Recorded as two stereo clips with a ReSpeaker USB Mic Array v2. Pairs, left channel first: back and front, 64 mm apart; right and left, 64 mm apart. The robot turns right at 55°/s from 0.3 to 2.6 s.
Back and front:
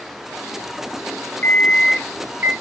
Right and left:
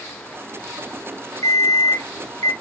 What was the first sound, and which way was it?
An alarm clock, 115° right.